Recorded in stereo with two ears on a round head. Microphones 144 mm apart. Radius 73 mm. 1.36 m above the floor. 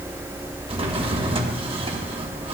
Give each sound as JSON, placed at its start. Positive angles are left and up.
{"t": 0.7, "sound": "a drawer", "side_deg": -35, "distance_m": 1.0}